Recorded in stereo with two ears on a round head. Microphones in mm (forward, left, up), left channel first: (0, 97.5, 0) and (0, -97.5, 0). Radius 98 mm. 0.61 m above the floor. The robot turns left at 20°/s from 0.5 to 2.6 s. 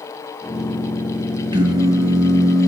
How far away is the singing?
About 3.5 m.